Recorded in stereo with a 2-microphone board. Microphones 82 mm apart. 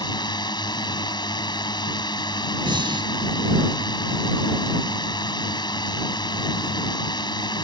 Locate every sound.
0.0 s a drone: 65° left (ahead or behind)
2.6 s breathing: 80° right